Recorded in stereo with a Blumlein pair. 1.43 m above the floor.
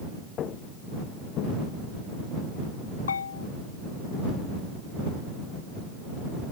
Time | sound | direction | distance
0.4 | footsteps | 30° left | ?
3.1 | a bell | 70° left | ?